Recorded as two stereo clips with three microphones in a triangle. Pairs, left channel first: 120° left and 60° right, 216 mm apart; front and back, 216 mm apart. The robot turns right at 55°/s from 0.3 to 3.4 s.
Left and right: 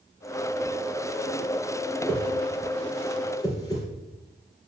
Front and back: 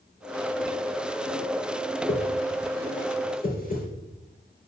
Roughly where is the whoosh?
Ahead right.